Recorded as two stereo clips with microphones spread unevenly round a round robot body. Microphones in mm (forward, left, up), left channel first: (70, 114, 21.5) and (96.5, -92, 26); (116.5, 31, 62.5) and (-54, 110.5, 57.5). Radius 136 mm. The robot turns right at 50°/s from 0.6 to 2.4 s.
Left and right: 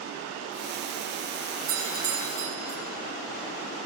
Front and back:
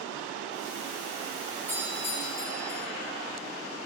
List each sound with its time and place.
1.7 s a doorbell: 105° right, 2.5 m; by 2.8 s 70° right, 2.5 m